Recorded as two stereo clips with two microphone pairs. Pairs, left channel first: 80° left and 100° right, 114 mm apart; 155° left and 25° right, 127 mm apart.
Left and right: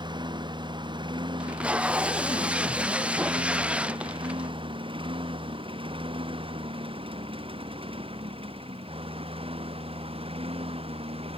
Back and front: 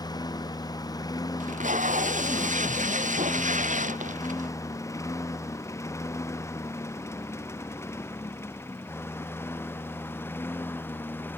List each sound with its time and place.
0.0 s a lawn mower: 145° right; by 11.4 s 130° right
1.4 s tape being pulled: 20° right